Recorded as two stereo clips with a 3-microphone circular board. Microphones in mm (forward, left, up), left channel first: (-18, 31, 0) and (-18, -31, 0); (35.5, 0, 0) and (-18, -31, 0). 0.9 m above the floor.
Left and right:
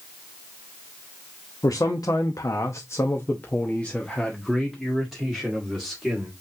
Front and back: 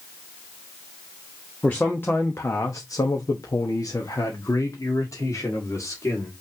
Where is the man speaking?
100° left, 1.0 m; by 6.3 s 10° right, 2 m.